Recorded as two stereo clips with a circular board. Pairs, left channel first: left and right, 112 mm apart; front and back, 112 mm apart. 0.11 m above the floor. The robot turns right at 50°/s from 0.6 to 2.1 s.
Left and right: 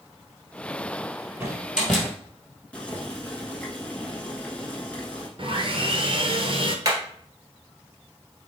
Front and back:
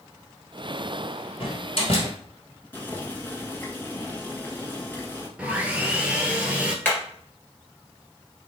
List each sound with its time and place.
1.4 s a door slam: 25° right, 1.7 m; by 2.1 s 10° left, 1.7 m
2.7 s boiling: 35° left, 1.1 m
5.4 s sawing: 100° right, 0.8 m
6.8 s hammering: 60° right, 1.7 m